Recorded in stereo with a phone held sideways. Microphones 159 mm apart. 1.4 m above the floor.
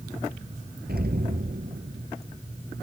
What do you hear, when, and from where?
0.9 s an explosion: 75° right (ahead or behind)